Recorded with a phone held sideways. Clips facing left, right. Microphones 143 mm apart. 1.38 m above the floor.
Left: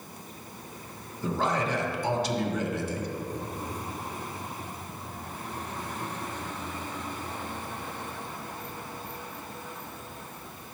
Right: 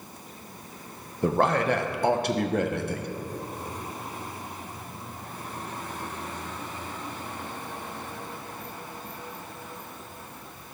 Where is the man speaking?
60° right (ahead or behind), 0.8 m.